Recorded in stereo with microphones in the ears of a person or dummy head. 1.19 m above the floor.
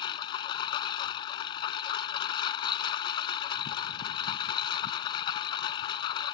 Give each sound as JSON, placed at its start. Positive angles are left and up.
{"t": 0.0, "sound": "a lawn mower", "side_deg": 35}